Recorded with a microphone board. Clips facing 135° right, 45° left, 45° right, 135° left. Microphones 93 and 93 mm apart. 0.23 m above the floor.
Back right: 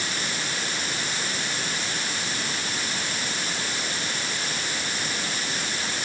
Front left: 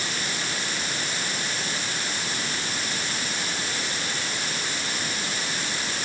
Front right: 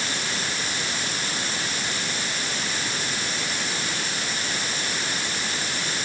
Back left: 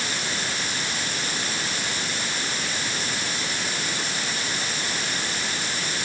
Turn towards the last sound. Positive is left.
No sound to turn to.